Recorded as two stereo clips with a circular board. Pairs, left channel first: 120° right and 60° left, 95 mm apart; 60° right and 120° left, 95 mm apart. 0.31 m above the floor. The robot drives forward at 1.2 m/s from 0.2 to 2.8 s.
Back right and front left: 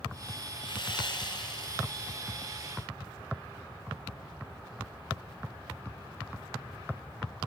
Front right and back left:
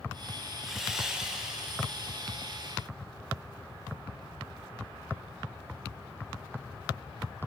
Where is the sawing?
155° right, 4.5 m; by 2.2 s 160° right, 6 m.